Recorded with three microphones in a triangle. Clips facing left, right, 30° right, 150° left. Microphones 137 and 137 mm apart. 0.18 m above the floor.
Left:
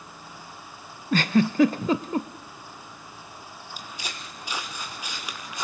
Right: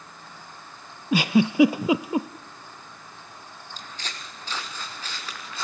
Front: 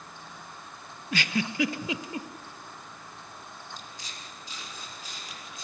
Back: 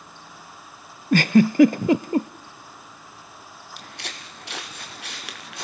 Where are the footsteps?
170° left, 2.5 m; by 5.7 s 165° left, 3.5 m.